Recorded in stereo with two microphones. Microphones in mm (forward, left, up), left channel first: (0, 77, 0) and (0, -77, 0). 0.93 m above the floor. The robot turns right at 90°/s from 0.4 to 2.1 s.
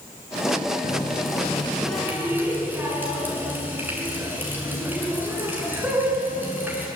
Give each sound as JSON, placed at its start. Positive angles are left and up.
{"t": 0.8, "sound": "a running tap", "azimuth_deg": 80, "distance_m": 6.5}